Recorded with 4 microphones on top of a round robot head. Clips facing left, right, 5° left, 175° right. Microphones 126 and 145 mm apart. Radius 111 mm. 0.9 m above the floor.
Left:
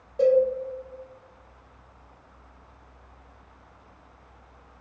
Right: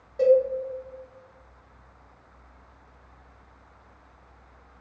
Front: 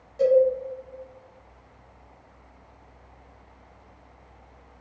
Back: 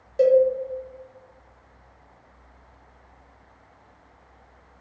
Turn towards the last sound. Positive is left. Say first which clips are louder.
# right 1 dB, back 2 dB
turn(degrees=170)